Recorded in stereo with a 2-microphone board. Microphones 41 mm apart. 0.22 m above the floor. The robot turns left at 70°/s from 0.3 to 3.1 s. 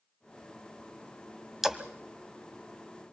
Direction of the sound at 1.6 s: 10° right (ahead or behind).